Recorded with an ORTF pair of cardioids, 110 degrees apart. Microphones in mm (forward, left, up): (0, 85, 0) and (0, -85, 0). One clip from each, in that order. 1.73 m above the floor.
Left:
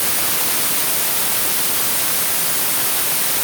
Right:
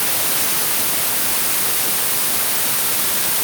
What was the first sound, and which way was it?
Only background noise.